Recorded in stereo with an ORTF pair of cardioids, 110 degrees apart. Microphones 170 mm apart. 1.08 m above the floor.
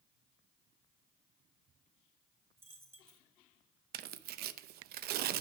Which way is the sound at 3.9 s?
65° right.